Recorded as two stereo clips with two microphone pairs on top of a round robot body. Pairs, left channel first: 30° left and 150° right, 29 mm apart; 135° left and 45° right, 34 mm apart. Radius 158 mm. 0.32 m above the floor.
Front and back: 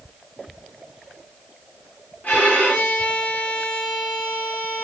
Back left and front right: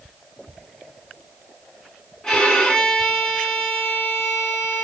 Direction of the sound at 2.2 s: 65° left.